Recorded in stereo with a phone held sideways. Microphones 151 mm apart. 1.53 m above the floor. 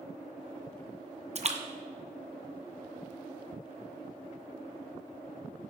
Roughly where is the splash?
Right.